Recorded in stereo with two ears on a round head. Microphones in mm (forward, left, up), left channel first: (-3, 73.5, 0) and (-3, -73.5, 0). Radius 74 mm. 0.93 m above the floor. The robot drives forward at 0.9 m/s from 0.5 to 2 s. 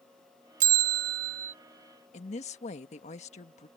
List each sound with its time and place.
0.6 s a bell: 50° right (ahead or behind); by 1.5 s 45° right (ahead or behind)
2.1 s a woman speaking: 45° left (ahead or behind)